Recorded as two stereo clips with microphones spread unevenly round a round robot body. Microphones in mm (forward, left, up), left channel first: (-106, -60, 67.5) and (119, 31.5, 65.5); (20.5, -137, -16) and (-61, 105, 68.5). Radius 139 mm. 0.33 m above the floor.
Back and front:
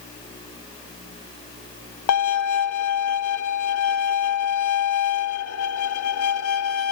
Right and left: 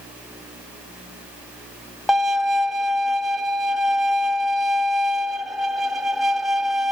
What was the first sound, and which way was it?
A violin, 150° right.